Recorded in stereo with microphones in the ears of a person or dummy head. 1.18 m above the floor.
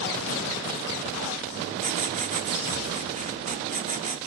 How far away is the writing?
About 1.9 m.